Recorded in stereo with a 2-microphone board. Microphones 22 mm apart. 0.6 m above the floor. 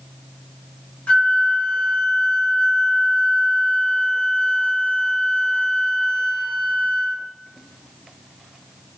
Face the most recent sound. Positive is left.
turn(degrees=85)